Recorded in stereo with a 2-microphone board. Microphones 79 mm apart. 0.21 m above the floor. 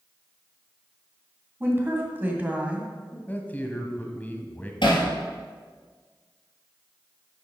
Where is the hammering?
75° left (ahead or behind), 3 m.